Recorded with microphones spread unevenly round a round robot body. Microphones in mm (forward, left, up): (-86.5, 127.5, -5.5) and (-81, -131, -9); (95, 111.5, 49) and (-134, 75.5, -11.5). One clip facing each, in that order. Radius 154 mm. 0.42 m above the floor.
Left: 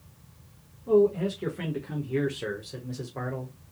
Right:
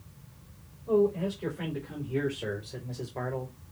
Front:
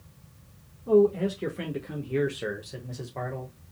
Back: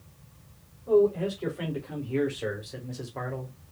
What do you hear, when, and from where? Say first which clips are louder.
0.9 s a man speaking: left 4 dB, front 1 dB; 65° left, 1.4 m; by 3.7 s 170° right, 1.1 m